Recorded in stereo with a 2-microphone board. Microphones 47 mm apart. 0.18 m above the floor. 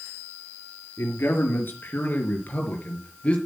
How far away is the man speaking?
About 3.5 m.